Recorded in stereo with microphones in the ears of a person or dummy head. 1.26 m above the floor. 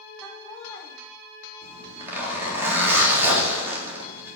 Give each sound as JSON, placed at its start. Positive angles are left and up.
{"t": 0.2, "sound": "laughter", "side_deg": 10, "distance_m": 4.5}
{"t": 1.6, "sound": "a zipper", "side_deg": -15, "distance_m": 3.0}